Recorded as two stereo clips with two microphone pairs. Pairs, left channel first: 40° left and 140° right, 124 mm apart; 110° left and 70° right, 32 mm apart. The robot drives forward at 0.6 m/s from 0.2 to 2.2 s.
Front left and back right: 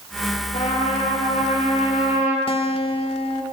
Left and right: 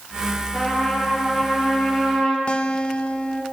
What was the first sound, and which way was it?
A trumpet, 45° left.